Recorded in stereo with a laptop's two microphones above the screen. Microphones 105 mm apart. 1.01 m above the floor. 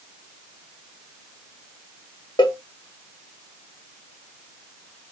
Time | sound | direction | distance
2.4 | a cowbell | 45° left (ahead or behind) | 0.8 m